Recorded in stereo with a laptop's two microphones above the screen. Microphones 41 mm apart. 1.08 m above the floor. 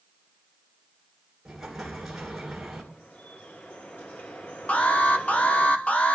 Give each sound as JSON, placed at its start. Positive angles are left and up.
{"t": 1.4, "sound": "an explosion", "side_deg": -5, "distance_m": 2.5}
{"t": 2.9, "sound": "dripping", "side_deg": 55, "distance_m": 9.5}
{"t": 4.7, "sound": "an alarm", "side_deg": 35, "distance_m": 1.0}